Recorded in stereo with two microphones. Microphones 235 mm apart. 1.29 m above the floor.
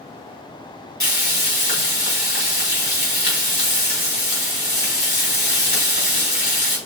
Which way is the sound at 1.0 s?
65° left (ahead or behind).